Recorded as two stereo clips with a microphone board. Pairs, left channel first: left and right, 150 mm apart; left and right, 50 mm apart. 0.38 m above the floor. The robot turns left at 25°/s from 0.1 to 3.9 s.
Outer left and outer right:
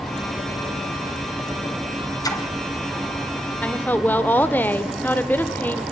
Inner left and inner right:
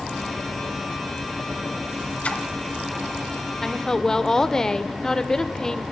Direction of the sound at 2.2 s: 25° left (ahead or behind).